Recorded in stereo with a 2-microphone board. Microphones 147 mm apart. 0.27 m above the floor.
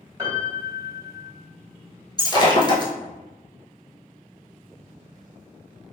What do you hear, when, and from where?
0.2 s a piano: 25° right (ahead or behind), 1.2 m
2.2 s breaking glass: 30° left (ahead or behind), 0.9 m